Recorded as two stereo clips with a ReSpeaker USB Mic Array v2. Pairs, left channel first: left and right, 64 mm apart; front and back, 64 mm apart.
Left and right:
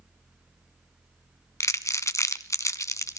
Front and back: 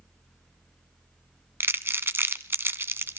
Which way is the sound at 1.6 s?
125° left.